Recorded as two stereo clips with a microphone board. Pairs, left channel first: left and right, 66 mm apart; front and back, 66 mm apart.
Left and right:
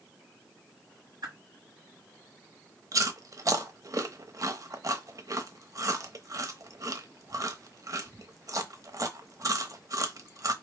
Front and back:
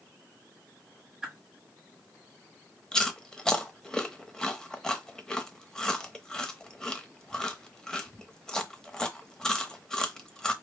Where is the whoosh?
100° right, 1.6 m.